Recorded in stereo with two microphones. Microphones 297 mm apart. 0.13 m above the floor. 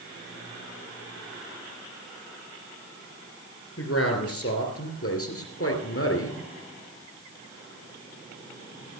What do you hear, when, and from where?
3.8 s a man speaking: 55° left (ahead or behind), 3 m; by 6.4 s 50° left (ahead or behind), 2.5 m